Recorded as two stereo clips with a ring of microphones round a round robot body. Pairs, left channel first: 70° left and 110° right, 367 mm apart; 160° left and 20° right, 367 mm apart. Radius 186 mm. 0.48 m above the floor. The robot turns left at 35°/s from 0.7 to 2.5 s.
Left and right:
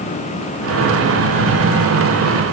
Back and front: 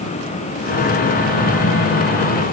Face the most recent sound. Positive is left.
No sound to turn to.